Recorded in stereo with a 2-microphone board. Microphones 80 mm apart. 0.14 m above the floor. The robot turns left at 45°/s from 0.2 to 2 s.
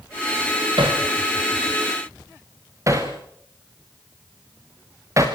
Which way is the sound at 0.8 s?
85° right.